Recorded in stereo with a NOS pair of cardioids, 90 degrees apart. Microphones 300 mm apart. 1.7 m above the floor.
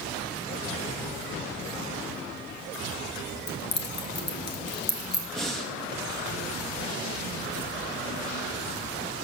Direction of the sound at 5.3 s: Straight ahead.